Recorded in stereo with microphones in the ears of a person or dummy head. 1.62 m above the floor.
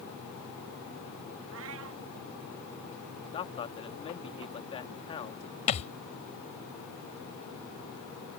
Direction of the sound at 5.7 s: 40° left (ahead or behind).